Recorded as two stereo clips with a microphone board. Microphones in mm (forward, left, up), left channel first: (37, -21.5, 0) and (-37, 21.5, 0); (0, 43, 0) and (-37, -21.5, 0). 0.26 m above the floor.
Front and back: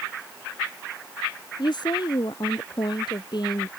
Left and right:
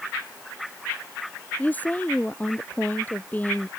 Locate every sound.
1.6 s a woman speaking: 5° right